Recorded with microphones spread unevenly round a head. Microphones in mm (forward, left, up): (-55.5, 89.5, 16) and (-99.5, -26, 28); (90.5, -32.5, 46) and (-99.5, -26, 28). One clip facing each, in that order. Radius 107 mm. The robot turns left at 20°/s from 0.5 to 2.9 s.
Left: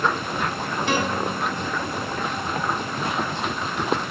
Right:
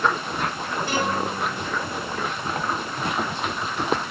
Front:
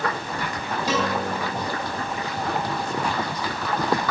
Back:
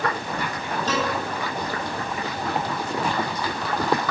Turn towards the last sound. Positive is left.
turn(degrees=40)